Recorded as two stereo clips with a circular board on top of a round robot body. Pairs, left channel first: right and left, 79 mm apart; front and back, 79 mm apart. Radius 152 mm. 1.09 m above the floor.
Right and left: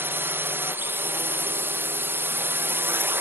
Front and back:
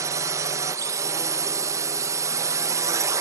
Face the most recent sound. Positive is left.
turn(degrees=145)